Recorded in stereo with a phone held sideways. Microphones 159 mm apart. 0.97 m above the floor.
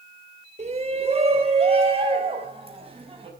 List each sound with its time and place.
0.6 s a shout: 40° right (ahead or behind), 3 m; by 3.3 s 35° right (ahead or behind), 5.5 m